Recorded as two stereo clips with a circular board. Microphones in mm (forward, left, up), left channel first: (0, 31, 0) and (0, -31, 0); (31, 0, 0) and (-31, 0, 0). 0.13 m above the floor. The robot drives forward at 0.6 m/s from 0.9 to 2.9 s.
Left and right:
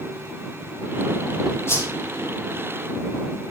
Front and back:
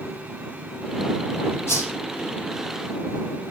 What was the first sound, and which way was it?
A whoosh, 45° left.